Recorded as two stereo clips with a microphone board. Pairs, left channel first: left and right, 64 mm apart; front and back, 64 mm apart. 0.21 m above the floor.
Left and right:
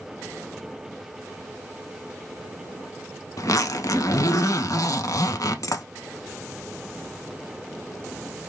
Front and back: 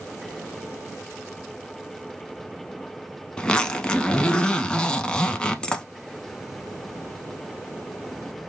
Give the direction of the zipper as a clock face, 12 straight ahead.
10 o'clock.